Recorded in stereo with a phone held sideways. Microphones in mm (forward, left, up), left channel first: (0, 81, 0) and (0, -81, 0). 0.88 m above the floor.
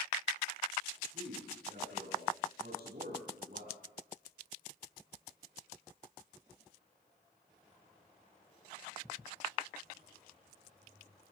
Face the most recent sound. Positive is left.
turn(degrees=-70)  # may be behind; listen again after turning